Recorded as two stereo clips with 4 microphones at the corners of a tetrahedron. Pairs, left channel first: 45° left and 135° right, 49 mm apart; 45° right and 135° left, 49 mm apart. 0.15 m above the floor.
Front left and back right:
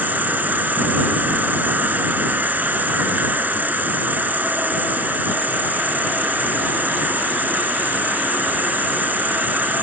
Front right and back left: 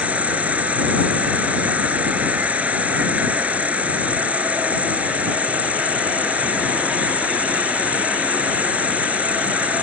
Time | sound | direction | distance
0.0 | an insect | 175° right | ?